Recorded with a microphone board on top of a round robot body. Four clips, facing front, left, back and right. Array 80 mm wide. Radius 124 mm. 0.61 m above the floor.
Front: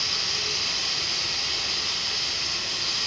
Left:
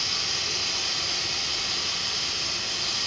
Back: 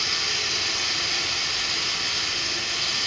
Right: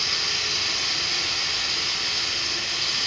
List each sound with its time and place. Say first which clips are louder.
0.0 s running water: right 3 dB, back 3 dB; 140° right, 7.5 m